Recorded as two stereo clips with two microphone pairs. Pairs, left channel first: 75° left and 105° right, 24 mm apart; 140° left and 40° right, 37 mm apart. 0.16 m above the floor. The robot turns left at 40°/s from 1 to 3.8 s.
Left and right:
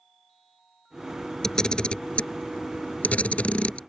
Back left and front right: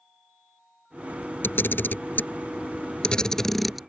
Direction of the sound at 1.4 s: 140° left.